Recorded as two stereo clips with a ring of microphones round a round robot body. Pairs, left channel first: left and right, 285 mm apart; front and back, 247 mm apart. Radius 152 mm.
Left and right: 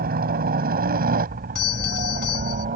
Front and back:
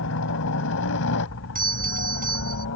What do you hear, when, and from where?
0.0 s a helicopter: 35° right
1.6 s a doorbell: 125° left